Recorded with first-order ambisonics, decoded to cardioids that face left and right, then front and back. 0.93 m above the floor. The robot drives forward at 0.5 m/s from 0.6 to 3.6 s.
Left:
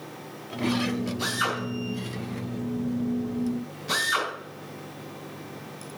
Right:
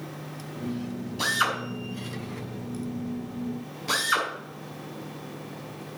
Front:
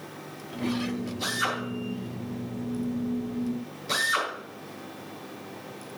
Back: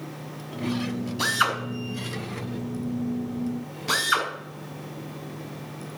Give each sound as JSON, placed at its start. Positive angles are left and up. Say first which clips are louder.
{"t": 1.2, "sound": "a drill", "louder": "right 4 dB, back 5 dB", "azimuth_deg": -145, "distance_m": 5.5}